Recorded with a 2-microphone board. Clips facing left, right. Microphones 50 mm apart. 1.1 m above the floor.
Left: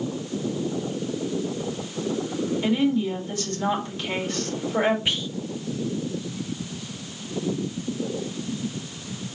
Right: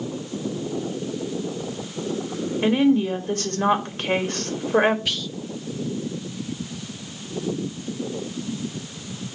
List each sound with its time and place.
2.6 s a woman speaking: 45° right (ahead or behind), 3 m
5.0 s whispering: 25° left (ahead or behind), 0.6 m